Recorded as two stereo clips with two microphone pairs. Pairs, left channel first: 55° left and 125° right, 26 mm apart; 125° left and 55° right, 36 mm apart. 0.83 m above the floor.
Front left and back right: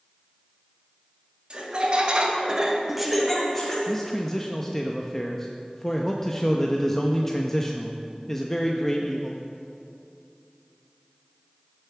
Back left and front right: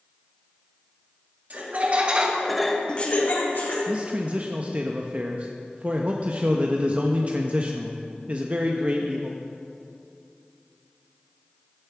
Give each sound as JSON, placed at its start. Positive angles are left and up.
{"t": 1.5, "sound": "laughter", "azimuth_deg": -85, "distance_m": 2.0}
{"t": 3.9, "sound": "a man speaking", "azimuth_deg": -15, "distance_m": 0.7}